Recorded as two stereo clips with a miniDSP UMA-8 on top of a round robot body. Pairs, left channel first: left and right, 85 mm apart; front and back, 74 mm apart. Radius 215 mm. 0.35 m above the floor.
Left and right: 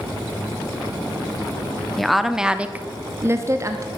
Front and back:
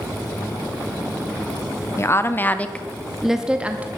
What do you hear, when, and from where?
2.0 s a woman speaking: 5° left, 1.2 m; by 3.9 s 120° right, 1.2 m